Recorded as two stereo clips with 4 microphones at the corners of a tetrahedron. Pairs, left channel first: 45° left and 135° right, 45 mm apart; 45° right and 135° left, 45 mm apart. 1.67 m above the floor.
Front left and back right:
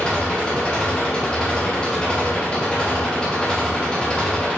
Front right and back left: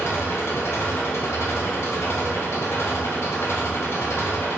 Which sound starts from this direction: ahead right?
An engine running, at 0.0 s.